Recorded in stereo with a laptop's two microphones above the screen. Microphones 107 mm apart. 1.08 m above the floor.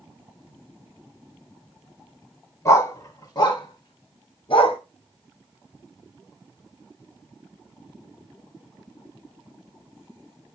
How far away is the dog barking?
About 4 m.